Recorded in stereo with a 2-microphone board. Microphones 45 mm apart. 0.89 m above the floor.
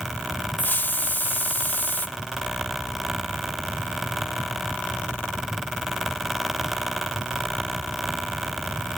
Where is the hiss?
45° left (ahead or behind), 0.8 m.